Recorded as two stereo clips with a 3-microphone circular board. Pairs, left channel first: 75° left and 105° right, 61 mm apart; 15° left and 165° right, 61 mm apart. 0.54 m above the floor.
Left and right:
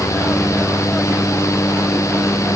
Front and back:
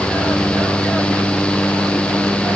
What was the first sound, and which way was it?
Only background noise.